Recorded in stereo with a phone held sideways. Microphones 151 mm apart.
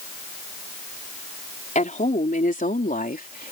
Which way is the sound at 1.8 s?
55° left (ahead or behind).